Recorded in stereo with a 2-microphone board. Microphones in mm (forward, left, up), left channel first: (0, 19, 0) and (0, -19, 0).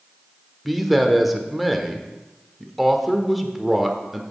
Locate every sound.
0.7 s a man speaking: centre (ahead or behind), 0.9 m